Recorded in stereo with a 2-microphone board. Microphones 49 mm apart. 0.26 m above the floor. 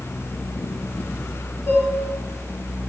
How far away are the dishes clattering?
About 2.5 m.